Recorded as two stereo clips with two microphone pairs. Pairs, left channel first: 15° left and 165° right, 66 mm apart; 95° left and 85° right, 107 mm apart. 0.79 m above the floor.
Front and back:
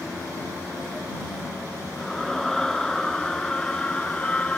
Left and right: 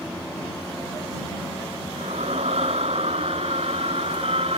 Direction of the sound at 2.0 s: 75° right.